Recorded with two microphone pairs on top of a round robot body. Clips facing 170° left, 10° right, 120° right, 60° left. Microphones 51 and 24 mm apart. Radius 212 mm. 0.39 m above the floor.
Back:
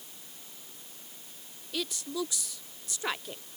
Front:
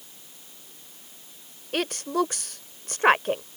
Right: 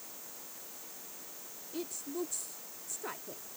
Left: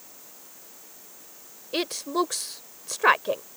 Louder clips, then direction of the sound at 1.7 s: Front 9 dB, left 13 dB; 30° left.